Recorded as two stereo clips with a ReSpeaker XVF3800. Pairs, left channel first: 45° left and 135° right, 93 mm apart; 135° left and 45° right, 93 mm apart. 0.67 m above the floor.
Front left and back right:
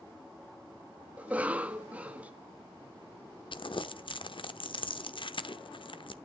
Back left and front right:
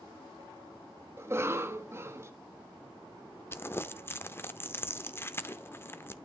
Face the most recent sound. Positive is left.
turn(degrees=70)